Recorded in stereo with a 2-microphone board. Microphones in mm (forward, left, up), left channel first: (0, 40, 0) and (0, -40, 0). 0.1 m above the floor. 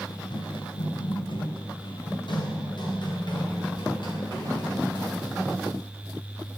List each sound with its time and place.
0.1 s running footsteps: 55° left (ahead or behind), 1.2 m; by 5.4 s 60° left (ahead or behind), 6 m